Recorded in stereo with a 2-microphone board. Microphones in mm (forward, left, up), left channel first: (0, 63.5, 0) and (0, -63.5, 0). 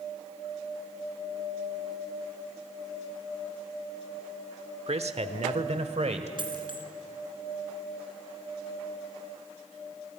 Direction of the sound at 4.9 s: 55° right (ahead or behind).